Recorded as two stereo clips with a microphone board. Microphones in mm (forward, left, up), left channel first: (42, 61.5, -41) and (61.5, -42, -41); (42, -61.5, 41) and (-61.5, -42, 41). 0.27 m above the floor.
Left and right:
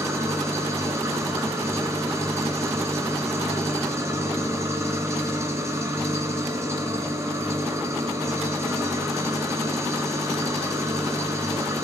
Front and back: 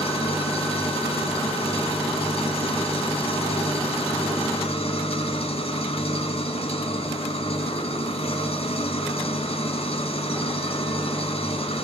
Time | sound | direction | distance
0.0 | an engine running | 20° right | 2.5 m